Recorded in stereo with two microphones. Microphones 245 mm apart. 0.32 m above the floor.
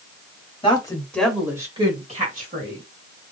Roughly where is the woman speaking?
Centre.